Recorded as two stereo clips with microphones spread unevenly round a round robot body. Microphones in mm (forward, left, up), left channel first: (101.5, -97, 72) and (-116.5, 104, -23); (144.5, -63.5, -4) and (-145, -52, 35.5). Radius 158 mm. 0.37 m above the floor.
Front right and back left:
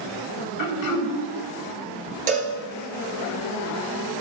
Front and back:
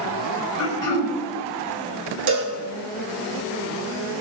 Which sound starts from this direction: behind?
A cowbell, at 2.3 s.